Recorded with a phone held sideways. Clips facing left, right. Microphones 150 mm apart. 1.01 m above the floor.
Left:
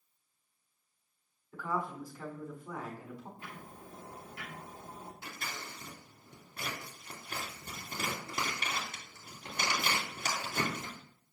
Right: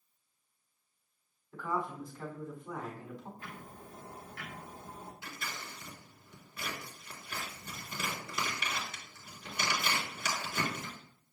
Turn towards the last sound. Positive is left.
turn(degrees=55)  # may be behind; listen again after turning